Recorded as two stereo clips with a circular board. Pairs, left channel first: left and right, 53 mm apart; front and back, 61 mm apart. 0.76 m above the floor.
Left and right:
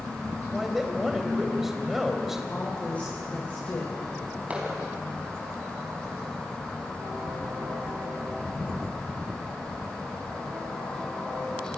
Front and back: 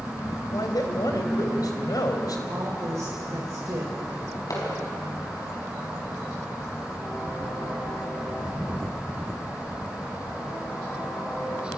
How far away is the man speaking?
About 3.5 m.